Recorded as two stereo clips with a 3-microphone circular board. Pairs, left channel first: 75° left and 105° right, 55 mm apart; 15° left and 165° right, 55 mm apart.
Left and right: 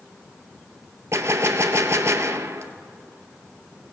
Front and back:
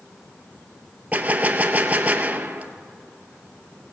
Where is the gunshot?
110° right, 0.6 m.